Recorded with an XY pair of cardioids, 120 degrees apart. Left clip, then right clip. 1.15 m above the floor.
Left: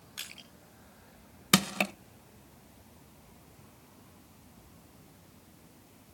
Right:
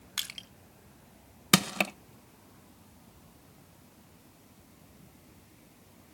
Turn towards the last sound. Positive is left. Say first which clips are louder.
# right 1 dB
turn(degrees=-15)